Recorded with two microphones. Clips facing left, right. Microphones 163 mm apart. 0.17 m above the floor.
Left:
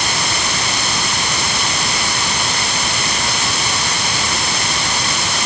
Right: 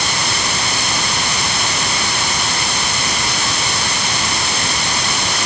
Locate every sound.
Only background noise.